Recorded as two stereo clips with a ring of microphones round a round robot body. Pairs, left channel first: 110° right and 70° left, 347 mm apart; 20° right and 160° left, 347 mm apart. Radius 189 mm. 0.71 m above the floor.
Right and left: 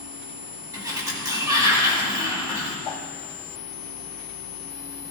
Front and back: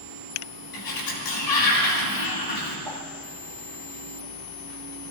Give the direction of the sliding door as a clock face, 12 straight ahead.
12 o'clock.